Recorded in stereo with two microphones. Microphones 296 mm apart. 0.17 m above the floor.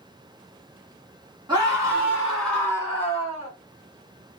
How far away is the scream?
About 1.9 m.